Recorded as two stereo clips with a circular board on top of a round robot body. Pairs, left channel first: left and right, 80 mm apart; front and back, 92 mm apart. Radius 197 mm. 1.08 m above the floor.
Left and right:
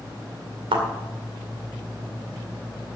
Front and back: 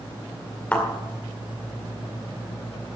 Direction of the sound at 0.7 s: 75° right.